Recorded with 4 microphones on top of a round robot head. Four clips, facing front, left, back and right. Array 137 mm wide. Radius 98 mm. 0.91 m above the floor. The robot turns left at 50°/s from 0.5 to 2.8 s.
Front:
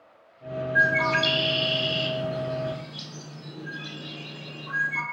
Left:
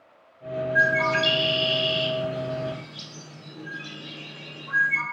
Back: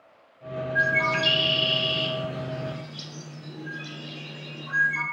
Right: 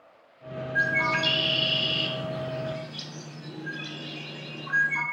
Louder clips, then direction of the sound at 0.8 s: Left 4 dB, front 2 dB; 20° left.